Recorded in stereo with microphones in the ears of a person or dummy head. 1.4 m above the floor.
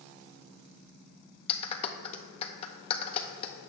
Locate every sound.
1.5 s a clap: 35° left (ahead or behind), 0.7 m